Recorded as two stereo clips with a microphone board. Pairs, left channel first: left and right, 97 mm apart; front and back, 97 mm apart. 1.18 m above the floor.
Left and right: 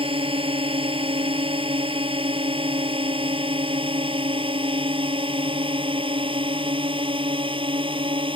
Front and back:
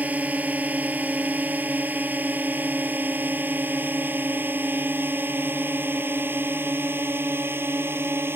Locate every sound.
0.0 s a drone: 105° right; by 8.4 s 115° right